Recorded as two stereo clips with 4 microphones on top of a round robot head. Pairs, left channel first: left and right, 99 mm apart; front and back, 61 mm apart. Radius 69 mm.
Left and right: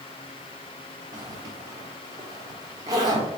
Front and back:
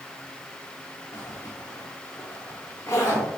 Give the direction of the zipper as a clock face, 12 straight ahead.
2 o'clock.